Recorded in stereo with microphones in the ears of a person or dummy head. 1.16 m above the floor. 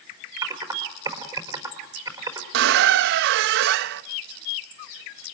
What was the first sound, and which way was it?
Typing on a keyboard, 20° right (ahead or behind).